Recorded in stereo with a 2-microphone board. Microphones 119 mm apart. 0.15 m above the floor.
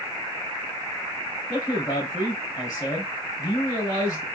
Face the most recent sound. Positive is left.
turn(degrees=30)  # may be behind; listen again after turning